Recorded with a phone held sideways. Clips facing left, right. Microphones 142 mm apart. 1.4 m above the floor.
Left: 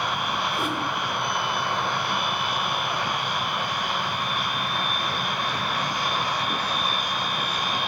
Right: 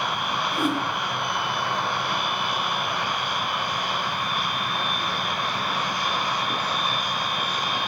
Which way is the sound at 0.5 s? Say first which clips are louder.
Right 3 dB; 65° right (ahead or behind).